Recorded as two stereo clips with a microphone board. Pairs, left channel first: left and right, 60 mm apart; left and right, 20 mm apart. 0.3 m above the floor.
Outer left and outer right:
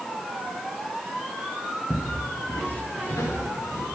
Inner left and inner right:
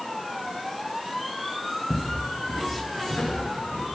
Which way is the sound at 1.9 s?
60° left (ahead or behind).